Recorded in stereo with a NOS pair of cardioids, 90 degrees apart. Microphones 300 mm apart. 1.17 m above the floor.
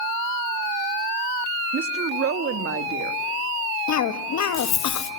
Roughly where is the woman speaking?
Ahead right.